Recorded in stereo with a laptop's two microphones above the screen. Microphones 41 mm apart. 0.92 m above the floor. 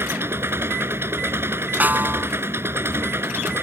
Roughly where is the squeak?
I don't hear a squeak.